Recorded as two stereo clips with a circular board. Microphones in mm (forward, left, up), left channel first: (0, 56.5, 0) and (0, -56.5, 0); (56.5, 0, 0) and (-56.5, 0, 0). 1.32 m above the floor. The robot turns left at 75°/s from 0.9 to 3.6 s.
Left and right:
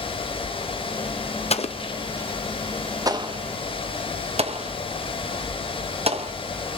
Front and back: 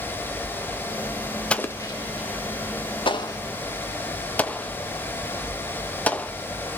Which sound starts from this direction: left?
An explosion, at 1.5 s.